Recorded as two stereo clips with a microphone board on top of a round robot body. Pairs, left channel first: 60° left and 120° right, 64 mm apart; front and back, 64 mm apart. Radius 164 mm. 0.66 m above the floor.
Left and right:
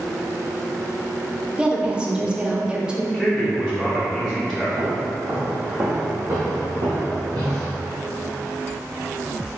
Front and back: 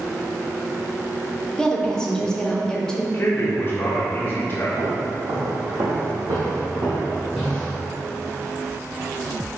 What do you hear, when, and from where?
1.6 s a woman speaking: 65° right, 1.0 m
3.1 s a man speaking: 10° right, 1.0 m
4.8 s footsteps: 170° left, 1.8 m; by 7.8 s 75° right, 0.9 m